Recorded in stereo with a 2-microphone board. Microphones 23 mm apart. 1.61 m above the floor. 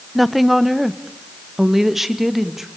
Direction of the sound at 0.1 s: 5° right (ahead or behind).